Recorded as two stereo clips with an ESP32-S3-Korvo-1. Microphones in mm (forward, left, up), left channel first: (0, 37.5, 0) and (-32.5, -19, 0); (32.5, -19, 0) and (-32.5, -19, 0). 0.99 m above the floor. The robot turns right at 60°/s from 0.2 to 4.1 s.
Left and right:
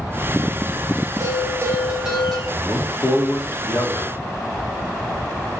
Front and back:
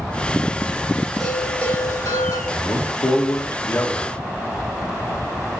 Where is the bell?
95° right, 4.5 m; by 2.4 s 20° right, 4.5 m.